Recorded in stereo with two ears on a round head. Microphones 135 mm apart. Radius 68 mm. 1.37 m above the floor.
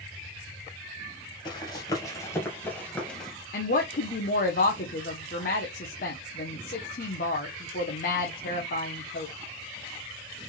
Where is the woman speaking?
65° left (ahead or behind), 1.2 m.